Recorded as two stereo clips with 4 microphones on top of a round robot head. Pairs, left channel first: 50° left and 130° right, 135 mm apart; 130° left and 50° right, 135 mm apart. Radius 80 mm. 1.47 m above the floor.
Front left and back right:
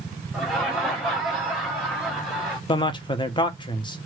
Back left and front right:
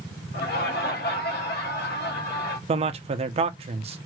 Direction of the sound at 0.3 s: 135° left.